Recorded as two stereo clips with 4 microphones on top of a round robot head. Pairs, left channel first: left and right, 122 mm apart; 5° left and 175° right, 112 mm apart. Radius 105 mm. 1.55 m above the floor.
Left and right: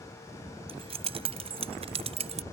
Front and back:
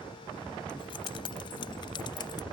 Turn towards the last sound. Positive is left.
turn(degrees=-55)